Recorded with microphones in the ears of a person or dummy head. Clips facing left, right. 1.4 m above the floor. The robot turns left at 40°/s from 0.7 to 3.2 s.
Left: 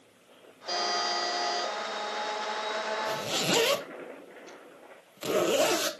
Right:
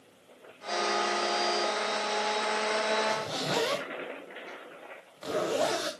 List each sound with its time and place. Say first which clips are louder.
0.7 s a buzzer: right 2 dB; 25° left, 4 m; by 1.7 s 15° right, 4 m
3.1 s a zipper: left 1 dB; 35° left (ahead or behind), 1.2 m; by 5.9 s 40° left (ahead or behind), 1.2 m